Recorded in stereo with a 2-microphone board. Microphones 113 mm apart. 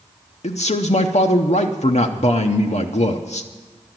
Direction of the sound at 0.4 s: 80° left.